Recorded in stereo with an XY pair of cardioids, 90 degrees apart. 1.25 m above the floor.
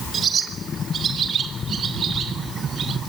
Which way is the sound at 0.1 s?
65° right.